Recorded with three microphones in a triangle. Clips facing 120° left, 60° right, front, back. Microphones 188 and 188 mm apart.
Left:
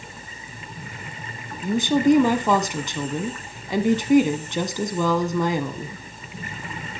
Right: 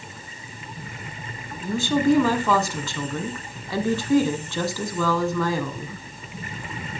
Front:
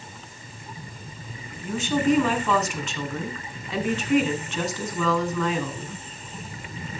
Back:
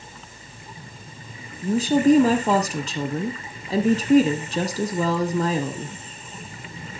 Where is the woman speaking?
175° left, 1.3 m.